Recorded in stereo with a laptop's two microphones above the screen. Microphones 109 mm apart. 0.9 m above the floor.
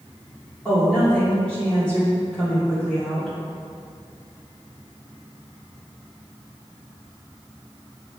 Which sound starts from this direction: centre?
A woman speaking, at 0.7 s.